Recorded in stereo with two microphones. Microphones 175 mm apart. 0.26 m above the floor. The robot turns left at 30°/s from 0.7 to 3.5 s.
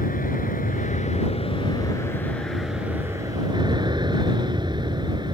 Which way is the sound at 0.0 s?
55° left.